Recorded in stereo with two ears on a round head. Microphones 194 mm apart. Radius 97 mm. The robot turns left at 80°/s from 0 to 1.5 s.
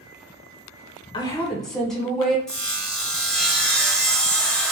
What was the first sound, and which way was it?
A woman speaking, 25° left (ahead or behind).